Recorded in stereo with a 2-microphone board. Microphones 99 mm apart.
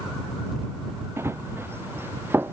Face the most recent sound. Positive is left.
turn(degrees=-20)  # may be behind; listen again after turning